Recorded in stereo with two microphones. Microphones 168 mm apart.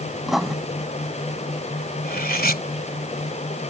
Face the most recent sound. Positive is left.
turn(degrees=65)  # may be behind; listen again after turning